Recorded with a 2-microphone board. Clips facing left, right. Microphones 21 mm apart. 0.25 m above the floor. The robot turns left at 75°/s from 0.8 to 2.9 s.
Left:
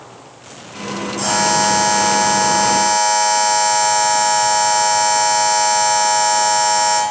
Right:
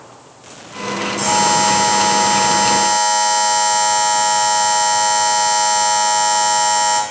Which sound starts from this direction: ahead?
A buzzer, at 1.2 s.